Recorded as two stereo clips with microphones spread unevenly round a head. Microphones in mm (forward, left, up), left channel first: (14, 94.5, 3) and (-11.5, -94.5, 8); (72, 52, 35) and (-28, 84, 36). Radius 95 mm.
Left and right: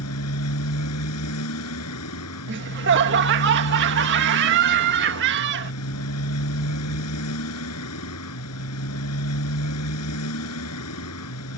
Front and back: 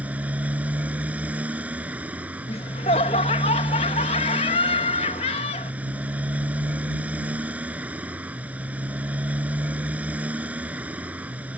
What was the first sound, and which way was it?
A motorcycle, 85° left.